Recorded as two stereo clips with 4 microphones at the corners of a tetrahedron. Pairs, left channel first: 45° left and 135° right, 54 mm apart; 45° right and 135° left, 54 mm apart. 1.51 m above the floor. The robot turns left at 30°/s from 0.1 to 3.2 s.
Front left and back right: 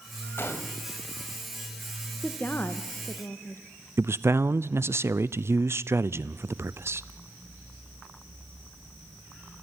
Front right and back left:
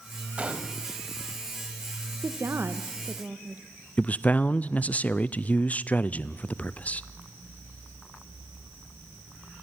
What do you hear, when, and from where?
0.4 s a gunshot: 75° left, 1.9 m; by 0.8 s 65° left, 1.9 m
2.2 s a woman speaking: 110° left, 1.3 m; by 3.6 s 80° left, 1.3 m
4.0 s a man speaking: 105° right, 0.5 m